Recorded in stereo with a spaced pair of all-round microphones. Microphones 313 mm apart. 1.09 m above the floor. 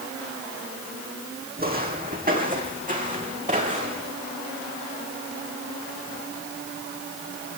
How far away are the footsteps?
About 3 m.